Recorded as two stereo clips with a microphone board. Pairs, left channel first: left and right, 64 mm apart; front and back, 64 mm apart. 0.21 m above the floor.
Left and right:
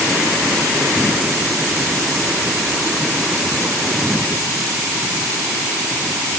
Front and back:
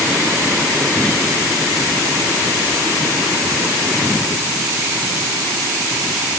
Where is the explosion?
No explosion in this recording.